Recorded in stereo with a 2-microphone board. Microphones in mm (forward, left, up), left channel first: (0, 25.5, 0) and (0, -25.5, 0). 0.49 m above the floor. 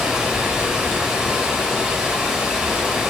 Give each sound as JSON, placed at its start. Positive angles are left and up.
{"t": 0.0, "sound": "running water", "side_deg": -15, "distance_m": 0.9}